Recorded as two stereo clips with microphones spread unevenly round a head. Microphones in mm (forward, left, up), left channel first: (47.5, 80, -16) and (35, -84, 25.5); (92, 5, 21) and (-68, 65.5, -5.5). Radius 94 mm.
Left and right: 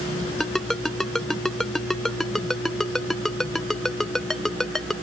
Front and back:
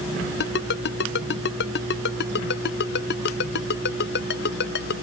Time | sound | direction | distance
0.4 | a ringtone | 5° right | ?